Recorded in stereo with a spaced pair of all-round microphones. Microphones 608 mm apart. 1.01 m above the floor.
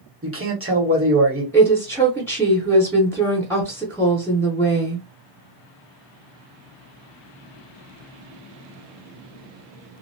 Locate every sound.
0.2 s a man speaking: 20° right (ahead or behind), 1.3 m
1.5 s a woman speaking: 5° left (ahead or behind), 0.7 m